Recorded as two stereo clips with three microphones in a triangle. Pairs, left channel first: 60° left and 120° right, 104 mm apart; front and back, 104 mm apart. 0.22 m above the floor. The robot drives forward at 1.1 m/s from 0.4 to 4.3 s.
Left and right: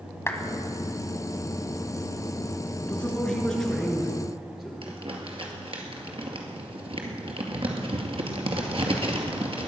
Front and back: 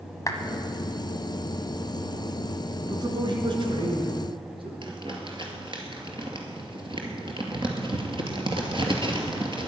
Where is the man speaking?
135° left, 2.5 m; by 4.7 s 155° left, 3.5 m.